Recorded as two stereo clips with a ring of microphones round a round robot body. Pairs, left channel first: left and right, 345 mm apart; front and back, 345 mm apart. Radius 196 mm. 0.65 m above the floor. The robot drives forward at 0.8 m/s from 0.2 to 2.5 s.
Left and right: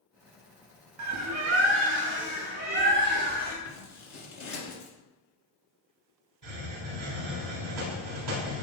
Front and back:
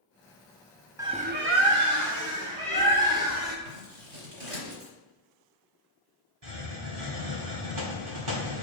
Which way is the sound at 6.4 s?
140° right.